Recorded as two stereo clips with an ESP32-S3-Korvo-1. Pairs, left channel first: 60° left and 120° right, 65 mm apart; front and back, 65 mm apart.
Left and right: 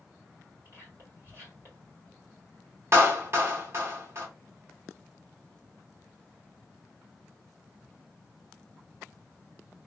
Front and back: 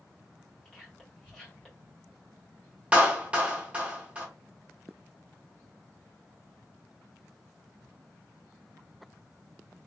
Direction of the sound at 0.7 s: 80° right.